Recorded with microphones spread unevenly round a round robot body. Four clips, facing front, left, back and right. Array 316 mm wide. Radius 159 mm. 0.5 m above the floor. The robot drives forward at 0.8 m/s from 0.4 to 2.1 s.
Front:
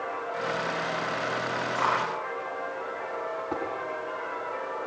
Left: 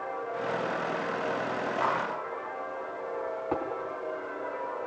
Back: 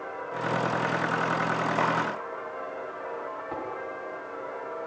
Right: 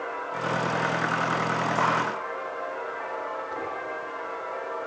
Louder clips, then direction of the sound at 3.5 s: Left 3 dB, front 3 dB; 55° left.